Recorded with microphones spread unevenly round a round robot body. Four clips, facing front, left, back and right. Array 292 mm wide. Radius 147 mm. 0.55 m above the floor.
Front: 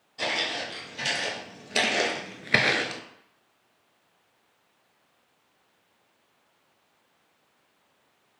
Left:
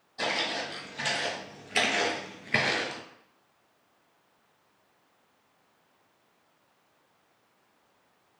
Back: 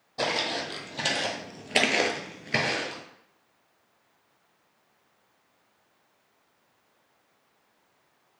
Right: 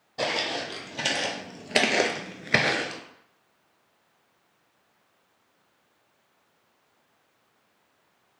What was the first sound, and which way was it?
Footsteps, 125° right.